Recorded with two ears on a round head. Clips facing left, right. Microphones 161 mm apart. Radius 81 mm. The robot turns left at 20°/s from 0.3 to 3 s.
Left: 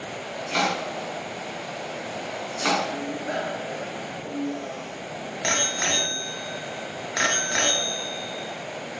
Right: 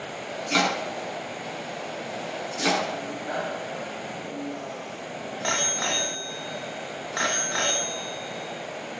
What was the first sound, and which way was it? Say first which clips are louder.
Chopping: right 1 dB; 55° right (ahead or behind).